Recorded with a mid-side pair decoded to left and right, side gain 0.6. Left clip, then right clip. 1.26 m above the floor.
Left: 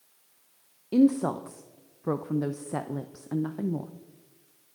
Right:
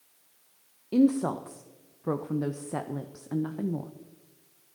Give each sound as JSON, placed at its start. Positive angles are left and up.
{"t": 0.9, "sound": "a woman speaking", "azimuth_deg": 5, "distance_m": 0.7}